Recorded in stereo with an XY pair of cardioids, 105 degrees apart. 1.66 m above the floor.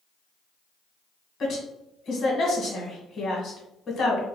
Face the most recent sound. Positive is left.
turn(degrees=55)